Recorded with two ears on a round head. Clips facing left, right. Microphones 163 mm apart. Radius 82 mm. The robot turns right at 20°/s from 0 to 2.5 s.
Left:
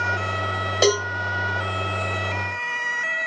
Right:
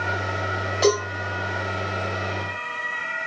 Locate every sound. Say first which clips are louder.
0.8 s a cowbell: even; 65° left (ahead or behind), 3 m; by 1.1 s 70° left (ahead or behind), 3 m